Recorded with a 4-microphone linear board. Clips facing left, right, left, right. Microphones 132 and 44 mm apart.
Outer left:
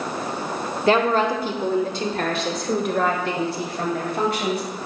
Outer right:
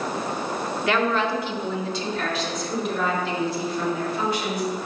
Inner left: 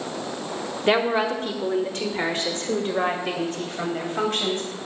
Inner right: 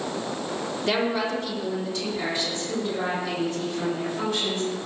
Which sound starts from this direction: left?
A woman speaking, at 0.9 s.